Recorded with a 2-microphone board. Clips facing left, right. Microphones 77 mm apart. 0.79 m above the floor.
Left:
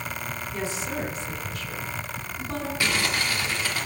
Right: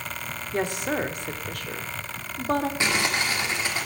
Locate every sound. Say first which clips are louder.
0.5 s a woman speaking: right 6 dB; 60° right (ahead or behind), 1.4 m
2.8 s crumpling: right 1 dB; 25° right (ahead or behind), 2 m